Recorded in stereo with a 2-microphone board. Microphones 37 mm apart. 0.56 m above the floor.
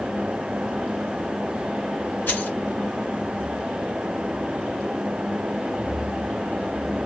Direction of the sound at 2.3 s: 55° left (ahead or behind).